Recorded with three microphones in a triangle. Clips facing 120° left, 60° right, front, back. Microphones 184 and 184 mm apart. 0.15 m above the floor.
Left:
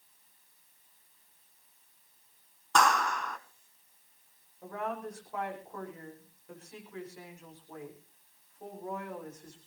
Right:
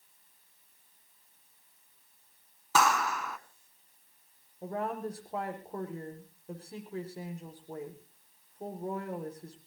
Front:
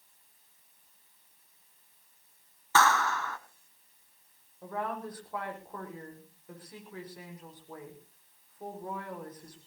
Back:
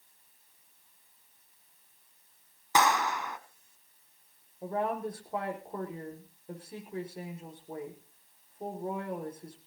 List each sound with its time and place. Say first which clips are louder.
2.8 s a clap: even, even; 140° right, 1.2 m
4.6 s a woman speaking: right 3 dB, back 4 dB; 115° right, 7 m